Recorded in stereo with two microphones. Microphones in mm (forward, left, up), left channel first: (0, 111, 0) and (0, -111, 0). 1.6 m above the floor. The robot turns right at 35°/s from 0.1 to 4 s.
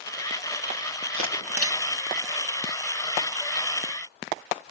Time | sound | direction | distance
1.1 | a camera shutter | 65° right (ahead or behind) | 2 m